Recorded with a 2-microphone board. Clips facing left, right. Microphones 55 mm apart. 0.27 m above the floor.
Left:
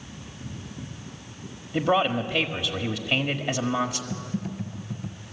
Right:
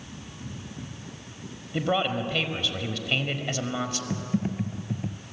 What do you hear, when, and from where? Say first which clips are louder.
1.7 s a man speaking: left 3 dB; 10° left (ahead or behind), 1.2 m
4.1 s typing on a keyboard: right 3 dB; 35° right (ahead or behind), 0.9 m